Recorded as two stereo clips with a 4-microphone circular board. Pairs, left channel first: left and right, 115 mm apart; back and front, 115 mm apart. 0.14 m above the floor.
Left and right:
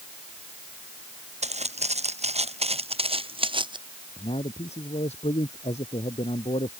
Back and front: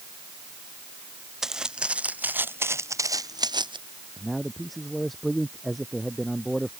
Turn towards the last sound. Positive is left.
turn(degrees=90)